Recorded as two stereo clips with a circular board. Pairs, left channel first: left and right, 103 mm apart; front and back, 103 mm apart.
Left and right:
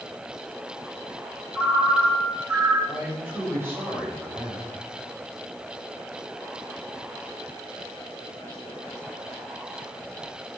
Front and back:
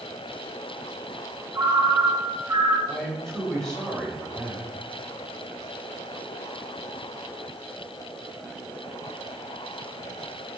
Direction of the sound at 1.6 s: 140° right.